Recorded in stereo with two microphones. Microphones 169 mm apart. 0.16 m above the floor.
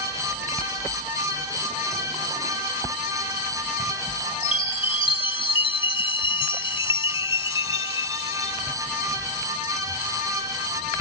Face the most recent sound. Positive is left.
turn(degrees=30)  # may be behind; listen again after turning